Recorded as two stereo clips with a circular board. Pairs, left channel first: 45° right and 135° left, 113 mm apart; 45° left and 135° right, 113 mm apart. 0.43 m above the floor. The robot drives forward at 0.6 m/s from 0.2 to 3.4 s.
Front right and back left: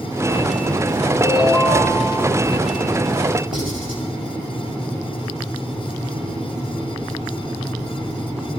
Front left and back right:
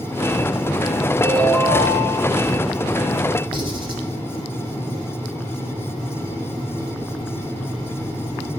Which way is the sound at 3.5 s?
175° right.